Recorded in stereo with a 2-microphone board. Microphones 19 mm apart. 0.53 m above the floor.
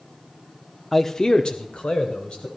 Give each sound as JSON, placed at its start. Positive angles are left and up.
{"t": 0.9, "sound": "a man speaking", "side_deg": 5, "distance_m": 0.7}